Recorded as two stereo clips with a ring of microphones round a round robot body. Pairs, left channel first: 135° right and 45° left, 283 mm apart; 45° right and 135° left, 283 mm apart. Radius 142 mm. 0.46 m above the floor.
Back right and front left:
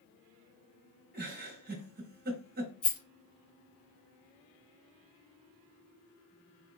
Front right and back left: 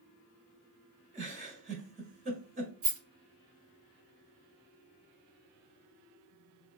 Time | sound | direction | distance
1.1 | a giggle | 80° left | 1.0 m
2.8 | a rattle | straight behind | 2 m